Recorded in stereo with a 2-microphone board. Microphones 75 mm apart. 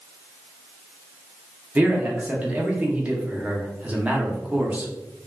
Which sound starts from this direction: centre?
A man speaking, at 1.8 s.